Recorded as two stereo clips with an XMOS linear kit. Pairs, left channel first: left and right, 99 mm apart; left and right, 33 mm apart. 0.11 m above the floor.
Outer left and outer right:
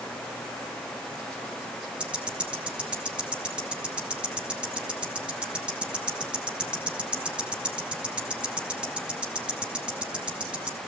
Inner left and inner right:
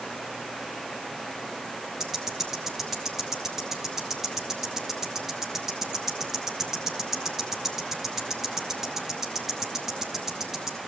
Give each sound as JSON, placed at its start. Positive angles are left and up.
{"t": 2.0, "sound": "ticking", "side_deg": -10, "distance_m": 2.0}